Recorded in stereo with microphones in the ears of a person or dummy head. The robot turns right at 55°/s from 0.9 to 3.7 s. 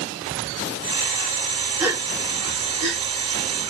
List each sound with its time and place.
1.8 s a gasp: 5° right (ahead or behind), 1.1 m; by 3.0 s 60° right (ahead or behind), 1.1 m